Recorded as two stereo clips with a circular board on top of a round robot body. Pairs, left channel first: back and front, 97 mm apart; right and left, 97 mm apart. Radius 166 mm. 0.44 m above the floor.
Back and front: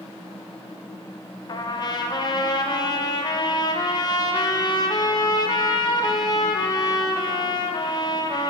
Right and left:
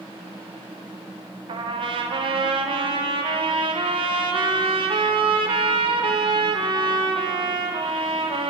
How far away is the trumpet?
About 0.6 m.